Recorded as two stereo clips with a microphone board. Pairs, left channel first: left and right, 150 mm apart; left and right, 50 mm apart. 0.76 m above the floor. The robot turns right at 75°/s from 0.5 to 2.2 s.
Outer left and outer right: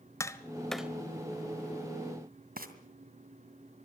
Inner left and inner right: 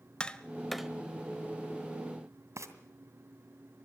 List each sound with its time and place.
0.2 s tapping: 20° left (ahead or behind), 1.3 m; by 0.9 s 10° right (ahead or behind), 1.3 m
2.6 s frying: 80° right, 2 m